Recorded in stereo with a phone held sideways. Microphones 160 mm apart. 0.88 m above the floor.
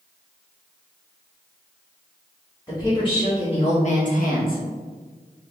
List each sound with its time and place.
2.7 s a woman speaking: 25° left (ahead or behind), 1.4 m; by 4.6 s 70° left (ahead or behind), 0.9 m